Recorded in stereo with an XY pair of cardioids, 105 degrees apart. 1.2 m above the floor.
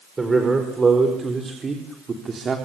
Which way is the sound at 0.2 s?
25° right.